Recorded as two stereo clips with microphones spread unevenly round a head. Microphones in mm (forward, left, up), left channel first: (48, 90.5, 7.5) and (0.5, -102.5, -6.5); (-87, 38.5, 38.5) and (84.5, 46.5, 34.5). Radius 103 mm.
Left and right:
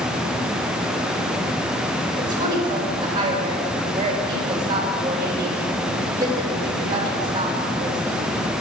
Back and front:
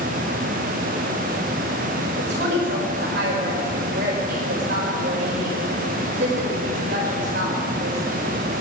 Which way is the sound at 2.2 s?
35° right.